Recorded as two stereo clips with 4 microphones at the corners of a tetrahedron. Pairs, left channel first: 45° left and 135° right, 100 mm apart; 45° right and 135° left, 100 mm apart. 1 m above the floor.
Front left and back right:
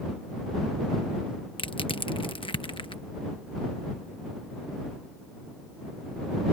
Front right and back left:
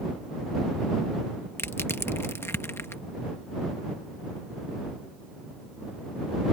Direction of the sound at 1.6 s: 20° left.